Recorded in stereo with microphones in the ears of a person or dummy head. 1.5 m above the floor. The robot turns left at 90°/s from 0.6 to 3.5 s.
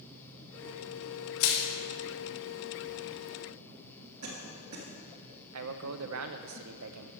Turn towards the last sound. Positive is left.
turn(degrees=-80)